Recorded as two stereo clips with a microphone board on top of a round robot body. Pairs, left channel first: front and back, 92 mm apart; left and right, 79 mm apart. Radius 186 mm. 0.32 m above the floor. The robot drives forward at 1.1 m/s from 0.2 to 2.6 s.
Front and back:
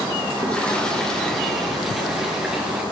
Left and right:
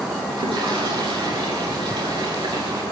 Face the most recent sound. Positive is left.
turn(degrees=-100)